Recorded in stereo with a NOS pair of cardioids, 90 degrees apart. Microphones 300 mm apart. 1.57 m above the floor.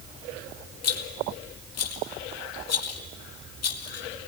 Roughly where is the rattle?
Ahead left.